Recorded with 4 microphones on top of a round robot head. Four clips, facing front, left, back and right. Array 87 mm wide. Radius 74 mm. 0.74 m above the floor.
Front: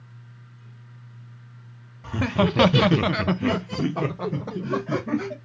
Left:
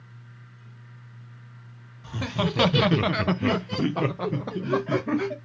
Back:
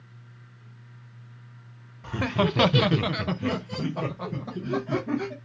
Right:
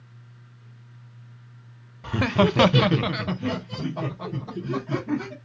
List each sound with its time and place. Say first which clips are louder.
2.0 s laughter: right 7 dB, front 2 dB; 90° right, 0.6 m; by 5.3 s 70° left, 1.5 m